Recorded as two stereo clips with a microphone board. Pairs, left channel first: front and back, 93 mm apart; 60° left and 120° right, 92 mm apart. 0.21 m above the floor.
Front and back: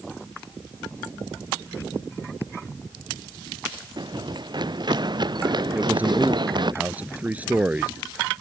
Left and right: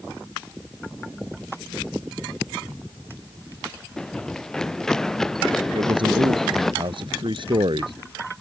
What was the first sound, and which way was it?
Running footsteps, 145° left.